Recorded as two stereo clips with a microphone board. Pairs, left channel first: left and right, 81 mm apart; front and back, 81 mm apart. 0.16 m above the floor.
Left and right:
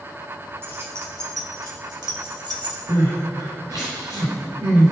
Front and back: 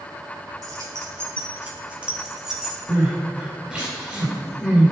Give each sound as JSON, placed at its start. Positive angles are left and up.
{"t": 0.6, "sound": "keys jangling", "azimuth_deg": -150, "distance_m": 2.5}
{"t": 2.9, "sound": "crying", "azimuth_deg": -105, "distance_m": 4.0}